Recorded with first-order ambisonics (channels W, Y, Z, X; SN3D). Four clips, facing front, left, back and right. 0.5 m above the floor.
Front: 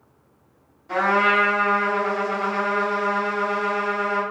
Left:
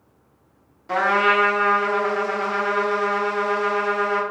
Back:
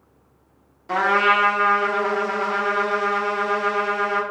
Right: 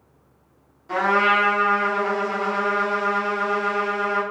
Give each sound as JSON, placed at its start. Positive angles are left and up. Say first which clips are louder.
{"t": 0.9, "sound": "a trumpet", "louder": "even, back 1 dB", "azimuth_deg": 150, "distance_m": 0.6}